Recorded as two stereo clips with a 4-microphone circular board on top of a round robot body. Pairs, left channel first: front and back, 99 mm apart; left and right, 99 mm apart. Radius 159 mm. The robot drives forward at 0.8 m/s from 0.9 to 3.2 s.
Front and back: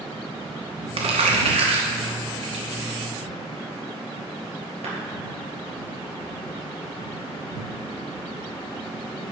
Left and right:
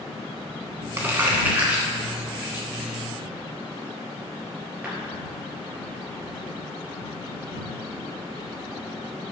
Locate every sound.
1.0 s crumpling: 160° right, 1.3 m; by 4.9 s 170° right, 3 m